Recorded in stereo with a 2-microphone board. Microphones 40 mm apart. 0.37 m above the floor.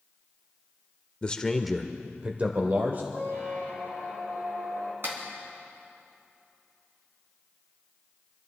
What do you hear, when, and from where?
1.2 s a man speaking: 25° left (ahead or behind), 0.9 m; by 3.0 s 50° right (ahead or behind), 1.4 m
3.1 s a squeak: 55° right (ahead or behind), 4.5 m
5.0 s a clap: 60° right (ahead or behind), 3.5 m